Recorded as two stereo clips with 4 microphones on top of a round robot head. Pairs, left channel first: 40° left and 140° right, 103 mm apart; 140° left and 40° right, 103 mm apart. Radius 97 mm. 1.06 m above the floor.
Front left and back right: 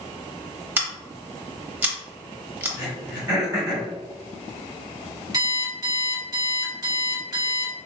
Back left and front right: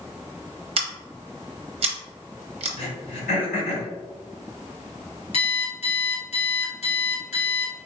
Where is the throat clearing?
160° left, 1.4 m.